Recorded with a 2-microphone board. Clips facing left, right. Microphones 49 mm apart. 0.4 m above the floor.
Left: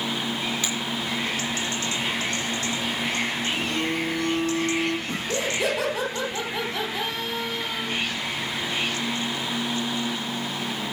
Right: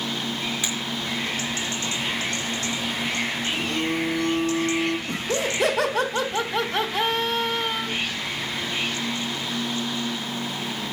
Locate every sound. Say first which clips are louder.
0.6 s a finger snap: even; 10° right (ahead or behind), 5.5 m
3.5 s a phone buzzing: right 1 dB; centre (ahead or behind), 6.5 m
5.1 s laughter: right 1 dB; 55° right (ahead or behind), 2.5 m